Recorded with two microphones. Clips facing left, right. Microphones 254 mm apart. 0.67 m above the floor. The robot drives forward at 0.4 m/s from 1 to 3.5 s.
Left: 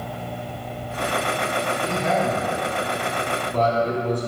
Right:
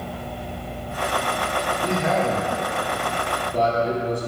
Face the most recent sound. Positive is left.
turn(degrees=-10)  # may be behind; listen again after turning